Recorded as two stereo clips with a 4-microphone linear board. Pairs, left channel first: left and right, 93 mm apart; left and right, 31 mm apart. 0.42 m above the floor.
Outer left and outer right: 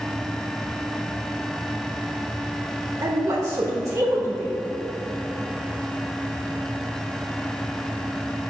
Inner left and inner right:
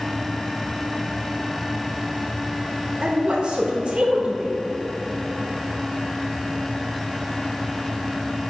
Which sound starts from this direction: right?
A woman speaking, at 3.0 s.